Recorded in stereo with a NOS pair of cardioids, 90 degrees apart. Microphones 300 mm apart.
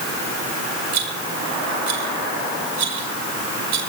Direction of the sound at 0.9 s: 65° right.